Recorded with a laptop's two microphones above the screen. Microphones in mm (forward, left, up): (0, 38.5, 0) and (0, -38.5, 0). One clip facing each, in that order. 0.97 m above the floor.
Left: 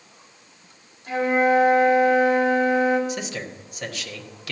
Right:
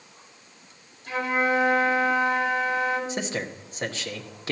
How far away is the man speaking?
About 1.0 m.